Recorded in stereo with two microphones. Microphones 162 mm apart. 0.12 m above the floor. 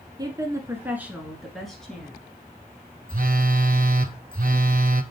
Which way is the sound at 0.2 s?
25° right (ahead or behind).